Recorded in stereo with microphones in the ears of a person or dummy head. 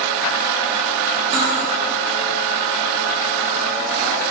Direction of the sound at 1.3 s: 20° right (ahead or behind).